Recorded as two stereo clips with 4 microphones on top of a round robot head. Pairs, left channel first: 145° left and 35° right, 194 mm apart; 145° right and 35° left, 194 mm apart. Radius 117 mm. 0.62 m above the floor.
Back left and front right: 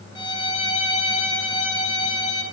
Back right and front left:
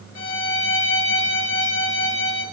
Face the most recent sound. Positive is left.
turn(degrees=-150)